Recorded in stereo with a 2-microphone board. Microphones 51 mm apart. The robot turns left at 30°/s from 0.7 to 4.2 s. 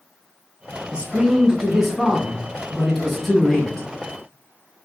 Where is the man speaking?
20° right (ahead or behind), 1.0 m; by 3.9 s 15° left (ahead or behind), 1.0 m.